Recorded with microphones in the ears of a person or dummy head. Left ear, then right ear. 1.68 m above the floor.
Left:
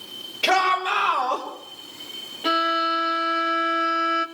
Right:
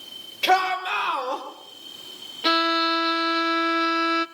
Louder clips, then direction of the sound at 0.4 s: Left 1 dB; 20° right (ahead or behind).